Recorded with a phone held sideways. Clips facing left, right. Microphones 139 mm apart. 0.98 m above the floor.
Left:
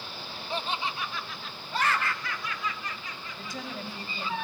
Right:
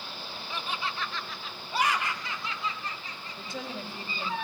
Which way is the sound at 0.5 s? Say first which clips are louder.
Left 3 dB; 35° left (ahead or behind).